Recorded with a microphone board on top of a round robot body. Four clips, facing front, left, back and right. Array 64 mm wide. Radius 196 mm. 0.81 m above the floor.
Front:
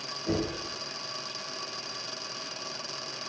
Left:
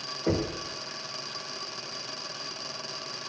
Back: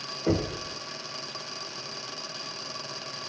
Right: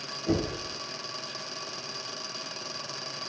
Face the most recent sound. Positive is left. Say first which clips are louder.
# even, back 3 dB
turn(degrees=130)